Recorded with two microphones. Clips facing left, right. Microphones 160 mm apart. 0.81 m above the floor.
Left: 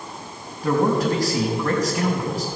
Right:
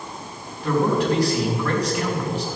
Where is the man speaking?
40° left (ahead or behind), 5 m.